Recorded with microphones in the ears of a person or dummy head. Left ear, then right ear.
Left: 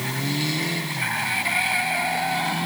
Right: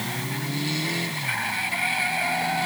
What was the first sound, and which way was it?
Only background noise.